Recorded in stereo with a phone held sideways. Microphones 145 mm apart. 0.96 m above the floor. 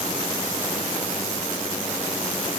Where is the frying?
No frying in this recording.